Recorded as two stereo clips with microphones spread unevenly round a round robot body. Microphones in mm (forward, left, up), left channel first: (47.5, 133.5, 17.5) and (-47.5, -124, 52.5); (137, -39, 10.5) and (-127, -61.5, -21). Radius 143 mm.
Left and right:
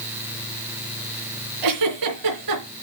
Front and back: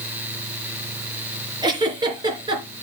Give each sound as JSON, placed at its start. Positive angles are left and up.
{"t": 1.6, "sound": "a giggle", "azimuth_deg": -100, "distance_m": 3.0}